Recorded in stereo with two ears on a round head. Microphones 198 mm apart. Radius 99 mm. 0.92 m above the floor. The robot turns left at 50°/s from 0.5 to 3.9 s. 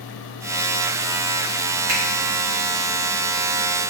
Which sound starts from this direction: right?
A finger snap, at 1.9 s.